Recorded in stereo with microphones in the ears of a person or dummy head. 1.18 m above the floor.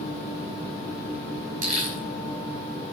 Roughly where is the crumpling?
Right.